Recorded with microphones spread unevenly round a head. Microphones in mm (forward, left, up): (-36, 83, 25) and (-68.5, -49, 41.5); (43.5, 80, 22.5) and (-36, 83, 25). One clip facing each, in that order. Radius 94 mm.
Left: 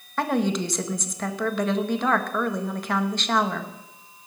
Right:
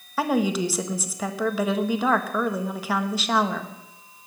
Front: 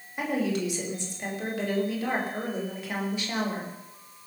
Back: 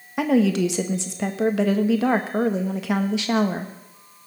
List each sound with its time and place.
0.2 s a woman speaking: 170° left, 1.6 m